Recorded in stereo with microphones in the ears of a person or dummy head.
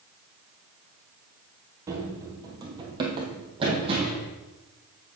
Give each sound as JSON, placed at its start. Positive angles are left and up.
{"t": 1.9, "sound": "running footsteps", "side_deg": -20, "distance_m": 1.8}